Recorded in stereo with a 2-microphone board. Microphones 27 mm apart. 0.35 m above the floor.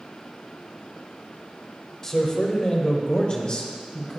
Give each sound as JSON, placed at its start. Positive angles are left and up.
{"t": 2.0, "sound": "a man speaking", "side_deg": 20, "distance_m": 1.6}